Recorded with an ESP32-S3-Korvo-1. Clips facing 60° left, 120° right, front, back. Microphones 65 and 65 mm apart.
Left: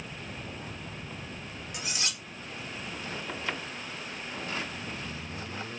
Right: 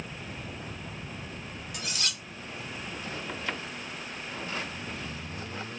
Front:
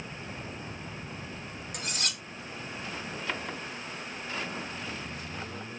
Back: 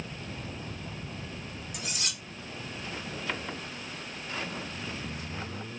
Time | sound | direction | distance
1.7 | cutlery clinking | straight ahead | 0.9 m